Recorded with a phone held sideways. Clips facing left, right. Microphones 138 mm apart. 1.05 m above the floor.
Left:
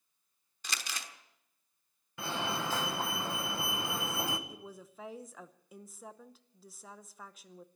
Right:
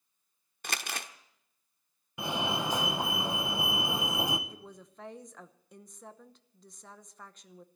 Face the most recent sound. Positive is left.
turn(degrees=5)  # may be behind; listen again after turning